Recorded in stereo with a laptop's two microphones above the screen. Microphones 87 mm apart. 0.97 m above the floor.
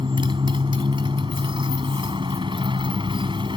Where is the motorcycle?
75° right (ahead or behind).